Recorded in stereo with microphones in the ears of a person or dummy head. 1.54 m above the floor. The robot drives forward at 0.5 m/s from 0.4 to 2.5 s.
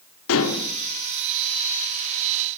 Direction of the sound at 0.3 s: 75° left (ahead or behind).